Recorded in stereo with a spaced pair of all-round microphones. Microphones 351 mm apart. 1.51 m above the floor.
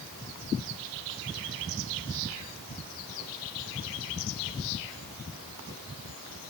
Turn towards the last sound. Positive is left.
No sound to turn to.